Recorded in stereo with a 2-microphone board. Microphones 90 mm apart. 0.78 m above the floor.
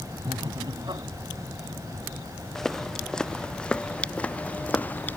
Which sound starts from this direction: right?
Laughter, at 0.2 s.